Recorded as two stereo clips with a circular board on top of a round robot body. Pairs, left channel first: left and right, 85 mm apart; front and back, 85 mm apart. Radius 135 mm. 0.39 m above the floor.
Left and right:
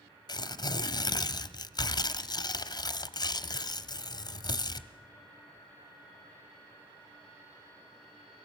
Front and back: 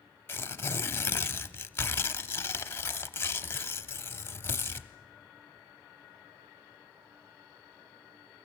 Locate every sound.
0.3 s tearing paper: 65° left, 0.9 m